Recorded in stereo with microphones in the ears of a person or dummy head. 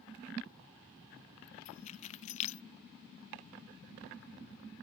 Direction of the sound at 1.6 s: 35° left (ahead or behind).